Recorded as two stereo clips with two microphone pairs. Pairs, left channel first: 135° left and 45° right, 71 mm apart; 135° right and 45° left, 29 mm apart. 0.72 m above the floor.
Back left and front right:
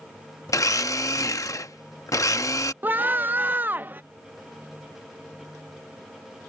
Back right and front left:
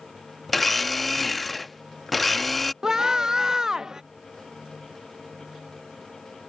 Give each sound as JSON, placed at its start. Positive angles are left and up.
{"t": 0.5, "sound": "a blender", "azimuth_deg": 140}
{"t": 2.8, "sound": "a scream", "azimuth_deg": -5}